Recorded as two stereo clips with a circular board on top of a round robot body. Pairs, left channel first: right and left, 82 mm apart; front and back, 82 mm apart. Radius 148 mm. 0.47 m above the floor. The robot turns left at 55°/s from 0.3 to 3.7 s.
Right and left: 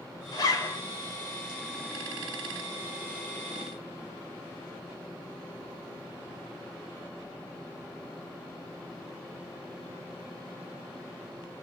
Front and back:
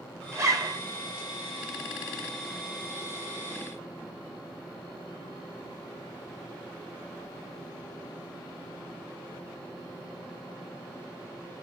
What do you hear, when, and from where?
0.3 s a zipper: 125° right, 1.0 m; by 0.8 s 150° right, 1.0 m